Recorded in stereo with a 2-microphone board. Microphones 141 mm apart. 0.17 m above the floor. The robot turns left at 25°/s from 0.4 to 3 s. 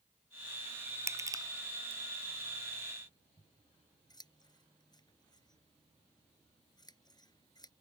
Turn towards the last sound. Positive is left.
turn(degrees=30)  # may be behind; listen again after turning